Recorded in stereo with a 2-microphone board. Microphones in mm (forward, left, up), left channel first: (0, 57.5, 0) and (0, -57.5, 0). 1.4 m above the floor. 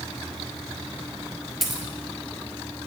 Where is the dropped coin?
Centre (ahead or behind), 1.7 m.